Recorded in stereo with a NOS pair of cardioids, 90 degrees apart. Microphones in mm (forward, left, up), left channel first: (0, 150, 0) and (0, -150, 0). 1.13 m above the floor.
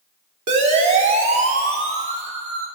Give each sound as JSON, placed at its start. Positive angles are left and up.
{"t": 0.5, "sound": "a siren", "azimuth_deg": -55, "distance_m": 3.0}